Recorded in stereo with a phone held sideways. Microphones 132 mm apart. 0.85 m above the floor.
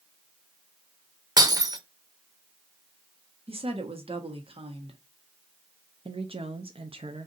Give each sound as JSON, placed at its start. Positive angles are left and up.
{"t": 1.4, "sound": "breaking glass", "side_deg": -30, "distance_m": 0.6}
{"t": 3.5, "sound": "a woman speaking", "side_deg": -45, "distance_m": 1.1}
{"t": 6.0, "sound": "a woman speaking", "side_deg": -45, "distance_m": 0.6}